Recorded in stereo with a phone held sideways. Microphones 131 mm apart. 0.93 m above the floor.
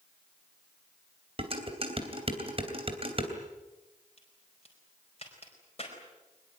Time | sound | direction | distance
1.4 | dishes clattering | 45° right (ahead or behind) | 3 m
4.2 | a crack | 50° left (ahead or behind) | 5 m